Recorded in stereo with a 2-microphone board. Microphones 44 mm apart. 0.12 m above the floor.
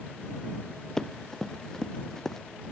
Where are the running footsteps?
10° left (ahead or behind).